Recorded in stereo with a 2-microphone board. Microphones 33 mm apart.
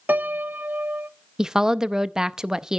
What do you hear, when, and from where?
0.1 s a piano: 60° right (ahead or behind), 0.7 m
1.4 s a woman speaking: 15° right (ahead or behind), 0.6 m